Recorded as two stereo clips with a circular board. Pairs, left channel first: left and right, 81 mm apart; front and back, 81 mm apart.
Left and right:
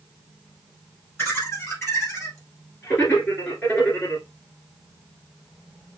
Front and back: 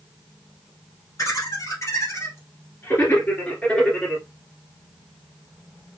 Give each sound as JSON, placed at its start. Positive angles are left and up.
{"t": 1.2, "sound": "laughter", "azimuth_deg": 20, "distance_m": 2.5}